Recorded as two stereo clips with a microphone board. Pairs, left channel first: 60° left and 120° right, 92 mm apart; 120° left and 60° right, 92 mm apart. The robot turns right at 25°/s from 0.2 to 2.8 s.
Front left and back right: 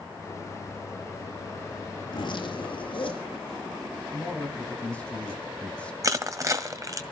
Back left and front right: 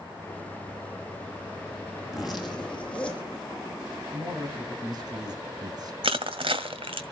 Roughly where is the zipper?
Ahead.